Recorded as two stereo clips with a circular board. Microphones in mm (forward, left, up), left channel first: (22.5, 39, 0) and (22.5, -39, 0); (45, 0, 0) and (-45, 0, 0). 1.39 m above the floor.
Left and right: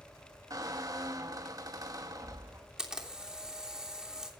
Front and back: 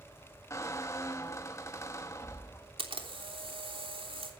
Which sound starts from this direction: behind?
A camera shutter, at 2.8 s.